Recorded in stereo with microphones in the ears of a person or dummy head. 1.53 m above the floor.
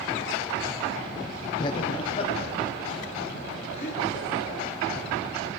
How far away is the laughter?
About 0.5 m.